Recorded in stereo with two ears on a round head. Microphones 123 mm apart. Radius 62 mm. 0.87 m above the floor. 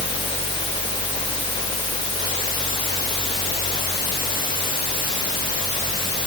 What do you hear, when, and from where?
Only background noise.